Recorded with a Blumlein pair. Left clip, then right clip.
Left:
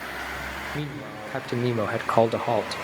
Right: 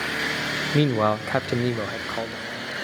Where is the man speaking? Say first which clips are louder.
Right 13 dB; 60° right, 0.7 m; by 2.8 s 45° left, 1.0 m.